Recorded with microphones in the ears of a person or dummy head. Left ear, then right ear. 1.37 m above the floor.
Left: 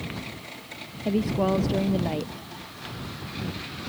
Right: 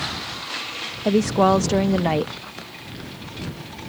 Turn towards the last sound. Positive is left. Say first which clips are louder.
# right 8 dB
turn(degrees=-50)  # may be behind; listen again after turning